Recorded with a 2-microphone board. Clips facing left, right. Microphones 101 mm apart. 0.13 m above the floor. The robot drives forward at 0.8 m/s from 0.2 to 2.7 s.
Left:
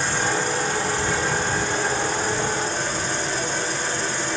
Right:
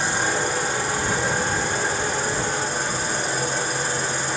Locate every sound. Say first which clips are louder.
0.0 s an insect: even; 10° right (ahead or behind), 9 m